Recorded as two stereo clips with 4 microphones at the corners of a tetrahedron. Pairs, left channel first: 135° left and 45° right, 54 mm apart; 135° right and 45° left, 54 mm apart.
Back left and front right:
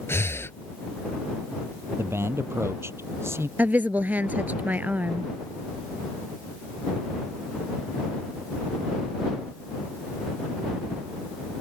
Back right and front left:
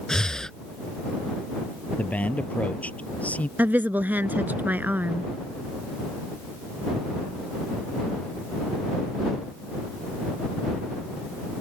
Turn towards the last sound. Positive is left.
turn(degrees=5)